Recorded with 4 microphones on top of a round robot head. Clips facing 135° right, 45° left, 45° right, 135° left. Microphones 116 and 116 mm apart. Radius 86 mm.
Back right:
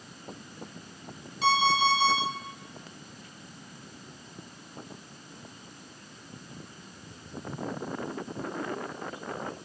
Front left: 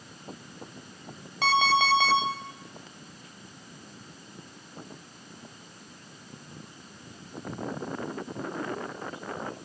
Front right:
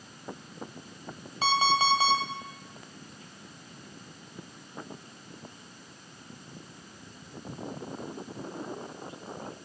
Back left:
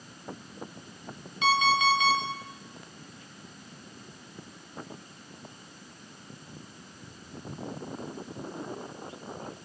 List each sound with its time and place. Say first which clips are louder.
1.4 s an alarm clock: even, back left 1 dB; 15° left, 1.5 m